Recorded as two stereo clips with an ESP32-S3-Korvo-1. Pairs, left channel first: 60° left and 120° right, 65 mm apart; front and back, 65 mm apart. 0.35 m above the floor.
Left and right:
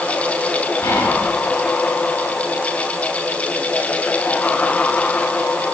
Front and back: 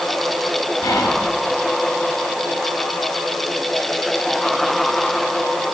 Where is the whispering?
40° left, 2.5 m.